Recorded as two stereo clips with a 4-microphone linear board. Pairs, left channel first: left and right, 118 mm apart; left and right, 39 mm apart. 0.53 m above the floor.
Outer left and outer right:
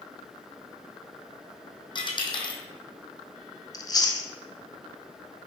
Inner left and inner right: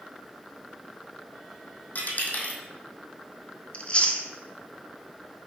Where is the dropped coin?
45° left (ahead or behind), 1.0 m.